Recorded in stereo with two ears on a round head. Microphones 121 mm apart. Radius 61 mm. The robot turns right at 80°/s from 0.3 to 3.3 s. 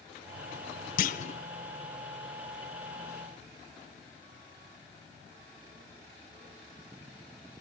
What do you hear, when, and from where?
1.0 s a clunk: 75° left (ahead or behind), 0.9 m; by 1.4 s 45° left (ahead or behind), 0.9 m